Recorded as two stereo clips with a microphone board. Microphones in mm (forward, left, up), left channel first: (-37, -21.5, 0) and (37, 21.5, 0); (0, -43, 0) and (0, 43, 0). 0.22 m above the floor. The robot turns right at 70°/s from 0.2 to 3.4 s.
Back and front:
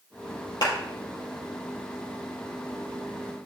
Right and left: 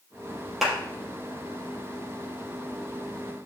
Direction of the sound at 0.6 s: Straight behind.